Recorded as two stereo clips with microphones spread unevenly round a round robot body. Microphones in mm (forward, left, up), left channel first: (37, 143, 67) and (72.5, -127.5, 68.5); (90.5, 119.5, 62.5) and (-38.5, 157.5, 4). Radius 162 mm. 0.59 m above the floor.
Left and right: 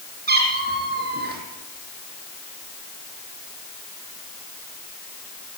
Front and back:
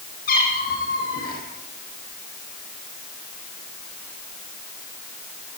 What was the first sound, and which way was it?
A cat meowing, 25° right.